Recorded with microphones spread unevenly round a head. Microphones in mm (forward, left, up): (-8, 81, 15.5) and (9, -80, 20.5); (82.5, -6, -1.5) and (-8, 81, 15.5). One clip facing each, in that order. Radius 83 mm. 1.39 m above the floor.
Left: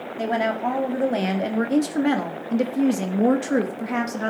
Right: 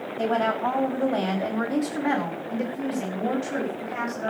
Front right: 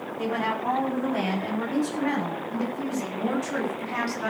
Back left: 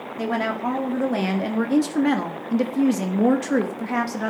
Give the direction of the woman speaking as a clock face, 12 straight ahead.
6 o'clock.